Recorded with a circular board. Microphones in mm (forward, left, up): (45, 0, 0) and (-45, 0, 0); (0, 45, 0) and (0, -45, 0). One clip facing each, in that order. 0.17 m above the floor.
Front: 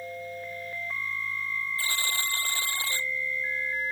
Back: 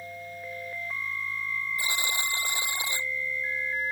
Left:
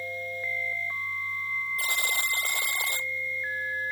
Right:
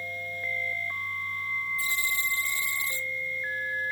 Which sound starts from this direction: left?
A buzzer, at 1.8 s.